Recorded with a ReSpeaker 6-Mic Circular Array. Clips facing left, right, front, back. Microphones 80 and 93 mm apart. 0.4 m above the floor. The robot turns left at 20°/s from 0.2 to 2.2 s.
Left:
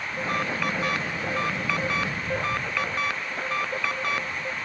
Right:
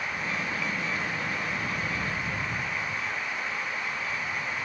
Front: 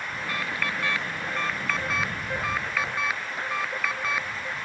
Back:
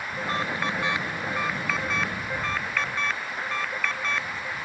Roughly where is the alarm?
Behind left.